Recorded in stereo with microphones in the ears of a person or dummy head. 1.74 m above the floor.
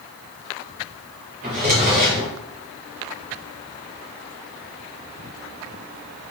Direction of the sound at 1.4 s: 30° right (ahead or behind).